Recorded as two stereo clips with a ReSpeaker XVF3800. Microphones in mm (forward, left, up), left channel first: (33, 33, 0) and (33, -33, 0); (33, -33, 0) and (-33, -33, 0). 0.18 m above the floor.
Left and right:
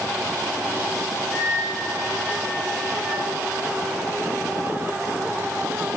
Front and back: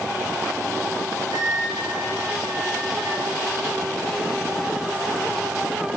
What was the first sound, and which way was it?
A flute, 10° right.